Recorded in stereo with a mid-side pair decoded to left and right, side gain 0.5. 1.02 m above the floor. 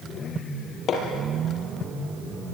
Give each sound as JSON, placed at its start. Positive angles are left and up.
{"t": 0.9, "sound": "hammering", "azimuth_deg": 55, "distance_m": 6.5}